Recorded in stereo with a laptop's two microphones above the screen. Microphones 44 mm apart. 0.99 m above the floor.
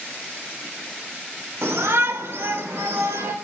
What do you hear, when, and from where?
1.6 s a shout: 85° right, 2.5 m; by 3.3 s 75° right (ahead or behind), 3.5 m